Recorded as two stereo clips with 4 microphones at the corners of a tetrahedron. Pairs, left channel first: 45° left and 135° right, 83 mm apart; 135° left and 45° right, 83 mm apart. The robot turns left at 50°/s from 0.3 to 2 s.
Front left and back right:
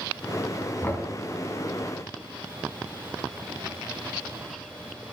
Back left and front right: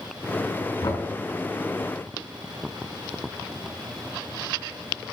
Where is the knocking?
115° left, 2 m; by 1.1 s 100° left, 2 m.